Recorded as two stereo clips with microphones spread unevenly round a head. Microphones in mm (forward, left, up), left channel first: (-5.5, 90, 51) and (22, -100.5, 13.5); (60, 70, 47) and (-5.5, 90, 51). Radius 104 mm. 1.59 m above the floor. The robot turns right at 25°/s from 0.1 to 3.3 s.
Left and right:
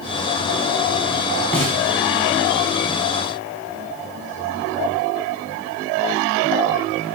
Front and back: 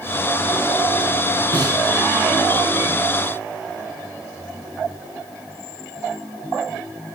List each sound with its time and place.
1.5 s a snare drum: straight behind, 7 m; by 1.8 s 175° right, 7 m